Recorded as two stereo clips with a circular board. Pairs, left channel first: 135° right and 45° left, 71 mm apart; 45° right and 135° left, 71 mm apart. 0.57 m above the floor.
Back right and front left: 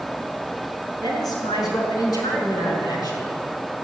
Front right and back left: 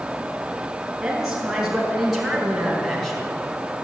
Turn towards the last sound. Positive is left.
turn(degrees=-130)